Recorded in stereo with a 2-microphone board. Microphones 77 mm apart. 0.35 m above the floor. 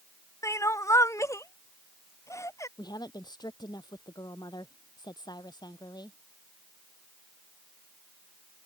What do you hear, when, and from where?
0.4 s crying: 45° left (ahead or behind)
2.8 s a woman speaking: 70° left (ahead or behind)